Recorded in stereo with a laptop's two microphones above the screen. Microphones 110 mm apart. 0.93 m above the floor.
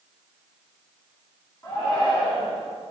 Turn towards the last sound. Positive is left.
turn(degrees=35)  # may be behind; listen again after turning